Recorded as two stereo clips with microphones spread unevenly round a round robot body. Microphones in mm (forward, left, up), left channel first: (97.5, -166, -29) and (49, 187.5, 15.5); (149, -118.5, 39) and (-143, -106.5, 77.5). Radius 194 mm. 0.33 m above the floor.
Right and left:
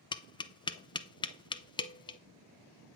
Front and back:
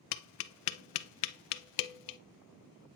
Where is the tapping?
5° right, 0.5 m.